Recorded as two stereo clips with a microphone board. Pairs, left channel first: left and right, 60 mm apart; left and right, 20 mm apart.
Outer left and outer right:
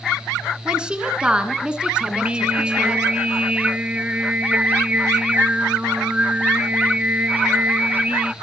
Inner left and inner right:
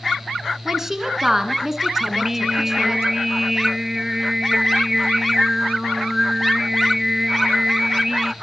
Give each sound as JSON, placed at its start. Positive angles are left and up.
{"t": 0.7, "sound": "a woman speaking", "side_deg": -15, "distance_m": 2.5}
{"t": 2.1, "sound": "singing", "side_deg": -20, "distance_m": 0.5}